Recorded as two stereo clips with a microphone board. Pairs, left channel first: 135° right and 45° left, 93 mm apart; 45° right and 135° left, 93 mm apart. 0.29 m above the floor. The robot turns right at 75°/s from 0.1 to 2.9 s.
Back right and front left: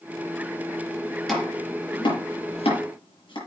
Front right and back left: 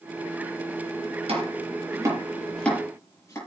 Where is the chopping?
135° left, 6.5 m; by 3.4 s 105° right, 6.5 m.